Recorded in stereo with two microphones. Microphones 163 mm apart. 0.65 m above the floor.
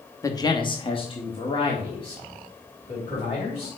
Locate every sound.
0.2 s a man speaking: 20° left (ahead or behind), 0.9 m; by 3.7 s 30° left (ahead or behind), 3.5 m